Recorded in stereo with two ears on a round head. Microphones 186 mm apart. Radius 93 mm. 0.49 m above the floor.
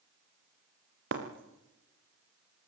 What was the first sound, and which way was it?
Breaking glass, 60° right (ahead or behind).